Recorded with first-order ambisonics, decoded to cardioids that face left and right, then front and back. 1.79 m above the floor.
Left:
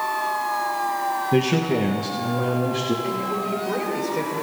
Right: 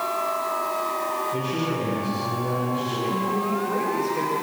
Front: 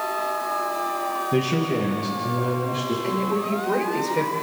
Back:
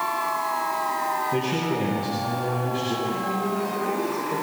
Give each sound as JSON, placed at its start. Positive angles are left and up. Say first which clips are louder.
{"t": 1.3, "sound": "a man speaking", "louder": "left 5 dB, front 2 dB", "azimuth_deg": 70, "distance_m": 2.5}
{"t": 3.0, "sound": "a woman speaking", "louder": "even, front 2 dB", "azimuth_deg": 15, "distance_m": 6.0}